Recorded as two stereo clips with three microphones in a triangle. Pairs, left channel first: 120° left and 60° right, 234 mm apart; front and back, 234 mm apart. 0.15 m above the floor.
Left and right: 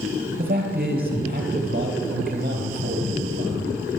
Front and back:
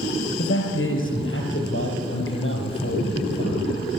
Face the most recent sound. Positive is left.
turn(degrees=-15)